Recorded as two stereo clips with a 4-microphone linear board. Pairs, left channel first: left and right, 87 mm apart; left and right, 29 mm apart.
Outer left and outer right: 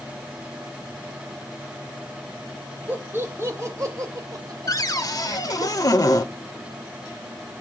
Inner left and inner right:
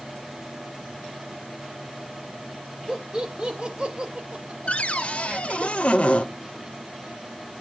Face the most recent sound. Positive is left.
turn(degrees=45)  # may be behind; listen again after turning